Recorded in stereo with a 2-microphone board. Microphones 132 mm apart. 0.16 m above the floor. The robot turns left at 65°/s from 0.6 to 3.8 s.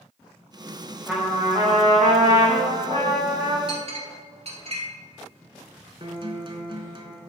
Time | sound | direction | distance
1.1 | a trumpet | straight ahead | 2.5 m
3.7 | a clink | 45° right (ahead or behind) | 1.7 m
6.0 | a guitar | 40° right (ahead or behind) | 1.2 m